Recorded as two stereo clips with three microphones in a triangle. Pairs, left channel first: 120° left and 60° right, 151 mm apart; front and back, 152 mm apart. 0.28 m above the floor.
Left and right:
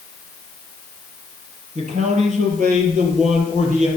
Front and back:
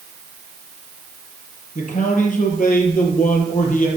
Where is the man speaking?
25° right, 6.5 m.